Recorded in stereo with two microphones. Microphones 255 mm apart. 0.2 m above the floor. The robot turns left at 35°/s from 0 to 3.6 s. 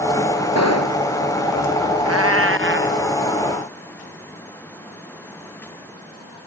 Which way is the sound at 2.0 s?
110° right.